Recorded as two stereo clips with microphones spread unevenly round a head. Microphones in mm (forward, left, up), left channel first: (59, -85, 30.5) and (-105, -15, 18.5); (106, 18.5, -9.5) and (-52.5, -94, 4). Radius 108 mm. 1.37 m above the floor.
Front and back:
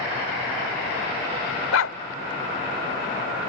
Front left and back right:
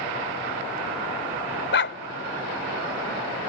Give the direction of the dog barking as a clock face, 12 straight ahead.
12 o'clock.